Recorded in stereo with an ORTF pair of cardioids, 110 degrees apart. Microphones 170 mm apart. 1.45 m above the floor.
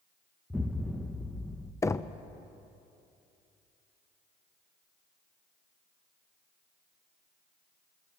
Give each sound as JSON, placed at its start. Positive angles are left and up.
{"t": 0.5, "sound": "an explosion", "azimuth_deg": 5, "distance_m": 1.2}
{"t": 1.8, "sound": "knocking", "azimuth_deg": 15, "distance_m": 0.8}